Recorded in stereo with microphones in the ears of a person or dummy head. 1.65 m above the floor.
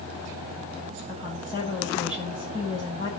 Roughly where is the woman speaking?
Left.